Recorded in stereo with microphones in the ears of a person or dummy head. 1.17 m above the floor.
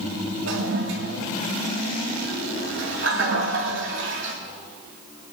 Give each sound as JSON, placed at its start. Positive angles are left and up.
{"t": 0.5, "sound": "a toilet flushing", "side_deg": -65, "distance_m": 2.0}